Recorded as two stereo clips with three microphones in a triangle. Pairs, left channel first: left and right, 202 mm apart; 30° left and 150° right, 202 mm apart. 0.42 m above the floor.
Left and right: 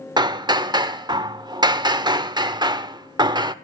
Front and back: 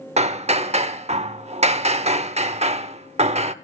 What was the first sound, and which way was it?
Hammering, 140° right.